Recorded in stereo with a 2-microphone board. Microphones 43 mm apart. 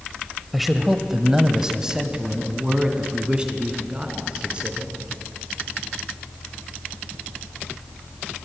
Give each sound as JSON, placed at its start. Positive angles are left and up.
{"t": 0.5, "sound": "a man speaking", "side_deg": -5, "distance_m": 1.1}